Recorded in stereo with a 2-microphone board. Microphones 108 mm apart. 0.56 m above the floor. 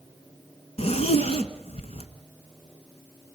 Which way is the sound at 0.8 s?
70° left (ahead or behind).